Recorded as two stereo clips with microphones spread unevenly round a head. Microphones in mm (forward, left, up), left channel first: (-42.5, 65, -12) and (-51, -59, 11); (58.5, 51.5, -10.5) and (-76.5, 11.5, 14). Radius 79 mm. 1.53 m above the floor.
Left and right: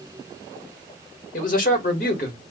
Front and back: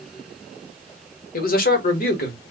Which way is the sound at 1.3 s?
40° left.